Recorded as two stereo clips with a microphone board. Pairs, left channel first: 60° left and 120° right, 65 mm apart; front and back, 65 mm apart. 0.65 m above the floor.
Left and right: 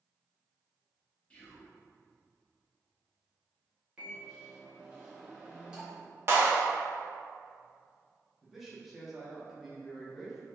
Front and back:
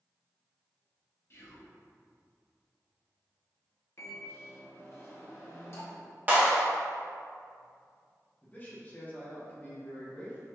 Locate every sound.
1.3 s whispering: straight ahead, 0.8 m
4.0 s a microwave: 45° right, 1.0 m
6.3 s a clap: 135° right, 0.7 m
8.4 s a man speaking: 40° right, 0.8 m